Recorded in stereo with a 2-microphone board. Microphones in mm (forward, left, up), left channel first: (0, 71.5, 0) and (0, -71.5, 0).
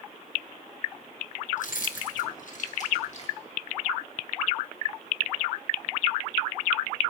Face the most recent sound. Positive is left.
turn(degrees=50)  # may be behind; listen again after turning